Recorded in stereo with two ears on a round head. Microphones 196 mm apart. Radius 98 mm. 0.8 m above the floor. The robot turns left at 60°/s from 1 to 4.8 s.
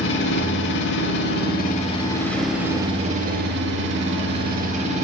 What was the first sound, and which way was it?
An engine running, 90° left.